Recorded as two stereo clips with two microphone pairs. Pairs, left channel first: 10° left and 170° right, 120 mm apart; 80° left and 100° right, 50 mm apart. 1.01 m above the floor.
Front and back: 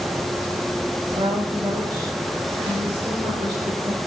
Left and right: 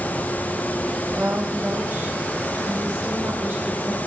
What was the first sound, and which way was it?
A woman speaking, 135° right.